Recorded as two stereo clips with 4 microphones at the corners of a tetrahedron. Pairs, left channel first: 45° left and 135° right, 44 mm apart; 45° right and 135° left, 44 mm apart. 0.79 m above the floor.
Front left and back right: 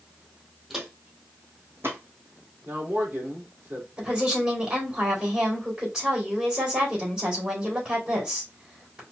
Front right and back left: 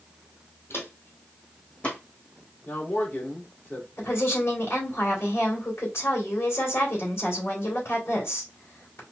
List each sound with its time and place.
0.7 s footsteps: 55° right, 1.6 m; by 2.0 s 105° right, 2.5 m
2.6 s a man speaking: 85° right, 2.5 m
4.0 s a woman speaking: 65° right, 3 m